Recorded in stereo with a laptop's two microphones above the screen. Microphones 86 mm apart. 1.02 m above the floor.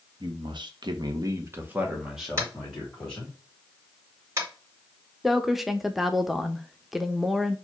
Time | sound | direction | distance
0.2 | a man speaking | 65° right (ahead or behind) | 0.9 m
2.4 | tapping | 35° right (ahead or behind) | 2.0 m
5.2 | a woman speaking | 5° right (ahead or behind) | 0.5 m